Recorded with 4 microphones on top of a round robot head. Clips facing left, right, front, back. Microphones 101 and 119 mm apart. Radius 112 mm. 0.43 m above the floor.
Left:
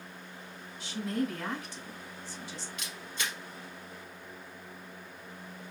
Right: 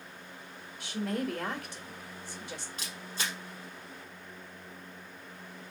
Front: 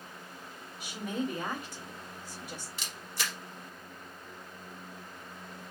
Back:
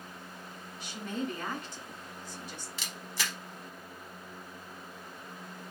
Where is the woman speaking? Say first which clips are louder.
Left 1 dB, front 2 dB; 80° right, 1.6 m.